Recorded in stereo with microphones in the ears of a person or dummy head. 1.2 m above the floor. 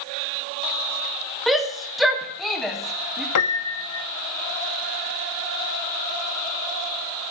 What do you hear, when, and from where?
1.5 s a shout: centre (ahead or behind), 1.6 m
3.4 s a piano: 75° left (ahead or behind), 0.8 m